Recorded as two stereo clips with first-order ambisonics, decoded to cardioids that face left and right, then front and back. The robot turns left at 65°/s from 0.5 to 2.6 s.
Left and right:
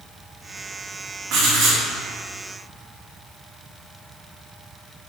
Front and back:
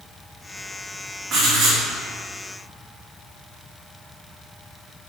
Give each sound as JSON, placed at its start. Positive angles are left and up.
{"t": 1.3, "sound": "writing", "azimuth_deg": -120, "distance_m": 2.0}